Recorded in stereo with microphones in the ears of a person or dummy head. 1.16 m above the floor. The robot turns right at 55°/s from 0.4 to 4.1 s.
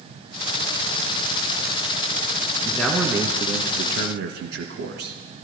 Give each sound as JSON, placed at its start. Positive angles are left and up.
{"t": 2.6, "sound": "a man speaking", "azimuth_deg": 155, "distance_m": 1.6}